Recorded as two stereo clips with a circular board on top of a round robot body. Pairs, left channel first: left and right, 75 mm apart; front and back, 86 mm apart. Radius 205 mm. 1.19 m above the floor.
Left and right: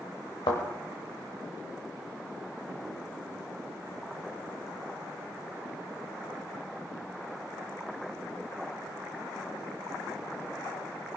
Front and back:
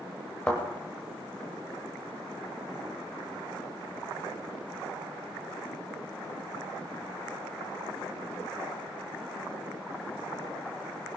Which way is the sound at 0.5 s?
80° left.